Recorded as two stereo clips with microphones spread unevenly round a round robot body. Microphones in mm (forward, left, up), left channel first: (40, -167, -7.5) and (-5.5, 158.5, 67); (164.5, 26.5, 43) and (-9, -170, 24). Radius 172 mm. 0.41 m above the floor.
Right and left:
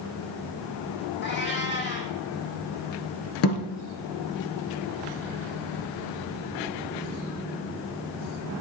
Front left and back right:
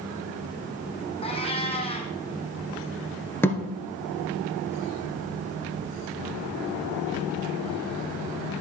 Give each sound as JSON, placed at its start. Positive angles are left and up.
{"t": 1.2, "sound": "a cat meowing", "azimuth_deg": -20, "distance_m": 1.7}
{"t": 3.4, "sound": "a thud", "azimuth_deg": -35, "distance_m": 1.5}